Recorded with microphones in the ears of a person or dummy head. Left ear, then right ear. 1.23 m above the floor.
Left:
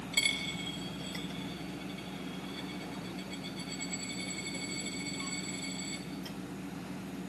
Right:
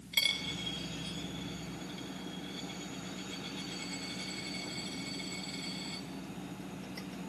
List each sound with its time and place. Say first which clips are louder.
0.1 s a dropped coin: even; 15° right (ahead or behind), 3.5 m